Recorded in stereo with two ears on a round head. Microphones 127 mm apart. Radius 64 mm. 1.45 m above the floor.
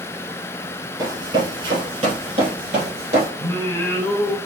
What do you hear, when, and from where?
1.0 s running footsteps: 30° right (ahead or behind), 1.7 m; by 3.3 s 55° right (ahead or behind), 3 m
3.4 s singing: 20° left (ahead or behind), 1.3 m